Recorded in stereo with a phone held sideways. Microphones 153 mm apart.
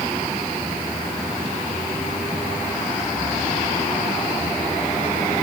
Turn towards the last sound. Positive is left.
No sound to turn to.